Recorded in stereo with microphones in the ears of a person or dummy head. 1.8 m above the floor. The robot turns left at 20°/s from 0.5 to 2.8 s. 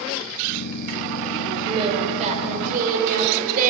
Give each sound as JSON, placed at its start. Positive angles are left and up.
{"t": 1.7, "sound": "singing", "side_deg": -30, "distance_m": 6.0}